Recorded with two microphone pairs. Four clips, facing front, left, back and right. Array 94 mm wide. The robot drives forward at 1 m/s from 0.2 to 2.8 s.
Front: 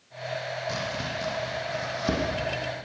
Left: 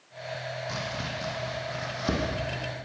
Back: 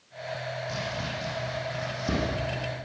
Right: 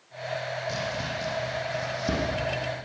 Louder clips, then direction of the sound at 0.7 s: Right 3 dB, front 2 dB; 45° left.